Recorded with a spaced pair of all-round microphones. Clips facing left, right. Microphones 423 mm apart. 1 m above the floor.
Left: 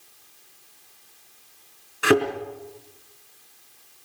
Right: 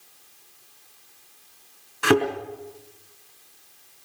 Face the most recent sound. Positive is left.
turn(degrees=-10)  # may be behind; listen again after turning